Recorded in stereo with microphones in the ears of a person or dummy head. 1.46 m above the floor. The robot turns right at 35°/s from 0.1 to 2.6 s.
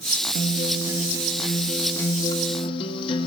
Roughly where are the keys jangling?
I don't hear keys jangling.